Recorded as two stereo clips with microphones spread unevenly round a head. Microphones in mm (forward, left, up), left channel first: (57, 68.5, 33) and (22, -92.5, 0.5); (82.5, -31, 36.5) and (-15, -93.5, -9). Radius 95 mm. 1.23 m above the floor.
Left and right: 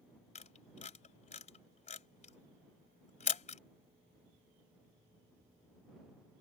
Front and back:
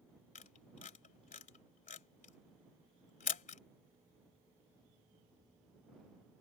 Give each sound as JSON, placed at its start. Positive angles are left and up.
{"t": 0.3, "sound": "a camera shutter", "azimuth_deg": 30}